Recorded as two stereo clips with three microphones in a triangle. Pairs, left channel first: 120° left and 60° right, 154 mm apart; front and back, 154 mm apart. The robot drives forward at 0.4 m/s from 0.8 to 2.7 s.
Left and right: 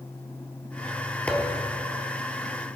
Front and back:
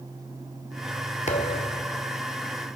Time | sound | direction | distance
1.3 | a thud | 40° left | 1.2 m